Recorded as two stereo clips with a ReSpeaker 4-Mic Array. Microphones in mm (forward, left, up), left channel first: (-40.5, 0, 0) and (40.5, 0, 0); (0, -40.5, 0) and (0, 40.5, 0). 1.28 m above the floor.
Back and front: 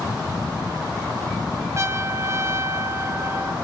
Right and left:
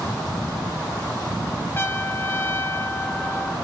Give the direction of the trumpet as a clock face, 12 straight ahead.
1 o'clock.